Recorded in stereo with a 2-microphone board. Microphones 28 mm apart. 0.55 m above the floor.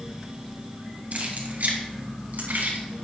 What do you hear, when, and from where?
1.1 s keys jangling: 55° right (ahead or behind), 2.5 m; by 3.0 s 85° right, 4 m